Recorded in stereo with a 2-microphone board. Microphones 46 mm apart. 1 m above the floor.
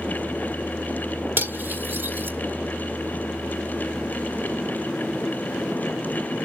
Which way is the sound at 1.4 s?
55° right (ahead or behind).